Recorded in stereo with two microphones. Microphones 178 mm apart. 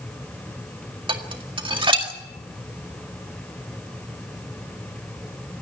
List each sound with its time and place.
1.1 s dishes clattering: 25° right (ahead or behind), 2.0 m